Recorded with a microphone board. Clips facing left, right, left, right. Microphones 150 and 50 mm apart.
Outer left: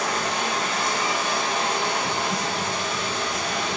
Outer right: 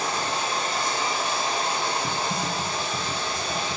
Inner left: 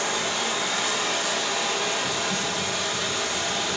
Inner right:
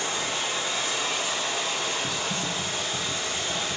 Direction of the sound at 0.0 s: 75° left (ahead or behind).